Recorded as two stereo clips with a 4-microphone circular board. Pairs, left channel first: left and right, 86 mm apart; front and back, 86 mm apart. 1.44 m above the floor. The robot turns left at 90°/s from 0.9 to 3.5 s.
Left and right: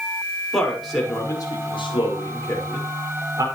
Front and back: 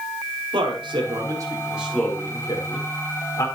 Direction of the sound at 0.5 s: Straight behind.